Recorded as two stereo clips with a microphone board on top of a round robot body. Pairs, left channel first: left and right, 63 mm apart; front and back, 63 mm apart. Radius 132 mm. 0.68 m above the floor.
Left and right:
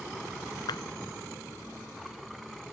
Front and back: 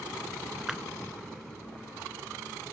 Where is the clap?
95° left.